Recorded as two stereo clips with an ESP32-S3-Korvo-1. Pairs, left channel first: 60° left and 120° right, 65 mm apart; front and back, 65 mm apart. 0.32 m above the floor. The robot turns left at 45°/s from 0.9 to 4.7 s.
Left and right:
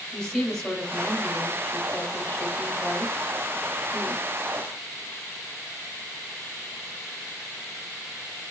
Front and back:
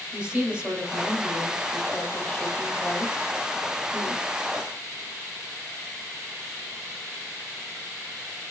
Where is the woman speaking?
140° left, 1.6 m; by 4.2 s 10° right, 1.6 m.